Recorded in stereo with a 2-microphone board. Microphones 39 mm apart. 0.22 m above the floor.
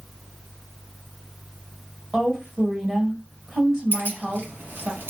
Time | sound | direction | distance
2.1 | a woman speaking | 20° right (ahead or behind) | 1.6 m
3.9 | keys jangling | 60° right (ahead or behind) | 1.2 m